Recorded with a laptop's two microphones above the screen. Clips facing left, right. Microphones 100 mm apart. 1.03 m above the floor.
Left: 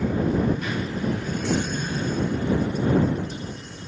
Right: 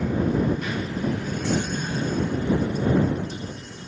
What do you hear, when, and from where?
1.8 s a phone buzzing: 30° right (ahead or behind)